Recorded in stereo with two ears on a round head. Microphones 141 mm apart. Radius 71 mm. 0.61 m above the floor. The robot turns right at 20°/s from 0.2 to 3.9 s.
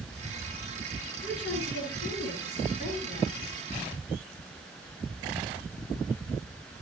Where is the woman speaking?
90° left, 8.5 m; by 3.7 s 140° left, 8.5 m.